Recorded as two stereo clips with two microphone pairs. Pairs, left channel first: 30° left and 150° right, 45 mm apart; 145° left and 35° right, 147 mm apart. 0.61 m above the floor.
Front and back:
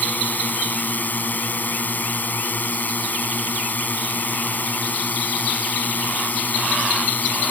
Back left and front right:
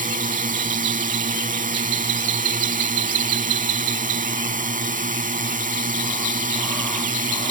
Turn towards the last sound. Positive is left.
turn(degrees=-15)